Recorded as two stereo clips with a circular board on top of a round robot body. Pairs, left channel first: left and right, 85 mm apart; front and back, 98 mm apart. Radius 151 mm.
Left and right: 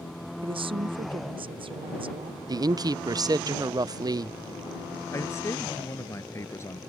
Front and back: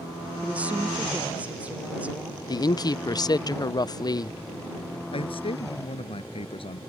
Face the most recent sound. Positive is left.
turn(degrees=35)